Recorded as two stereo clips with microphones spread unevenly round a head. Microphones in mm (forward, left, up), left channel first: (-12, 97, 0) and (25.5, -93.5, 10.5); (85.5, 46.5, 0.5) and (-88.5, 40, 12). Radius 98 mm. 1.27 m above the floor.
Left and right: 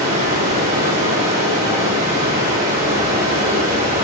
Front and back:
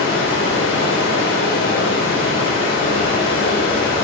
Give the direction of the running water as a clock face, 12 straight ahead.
1 o'clock.